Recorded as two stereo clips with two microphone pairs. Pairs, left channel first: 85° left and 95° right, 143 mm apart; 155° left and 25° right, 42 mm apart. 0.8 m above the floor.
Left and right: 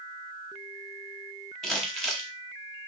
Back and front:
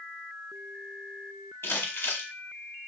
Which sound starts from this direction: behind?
Crumpling, at 1.6 s.